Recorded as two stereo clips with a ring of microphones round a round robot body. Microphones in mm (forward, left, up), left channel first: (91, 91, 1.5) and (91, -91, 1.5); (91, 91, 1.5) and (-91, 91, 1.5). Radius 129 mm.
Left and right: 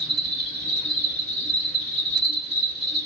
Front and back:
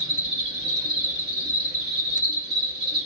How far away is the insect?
About 1.7 m.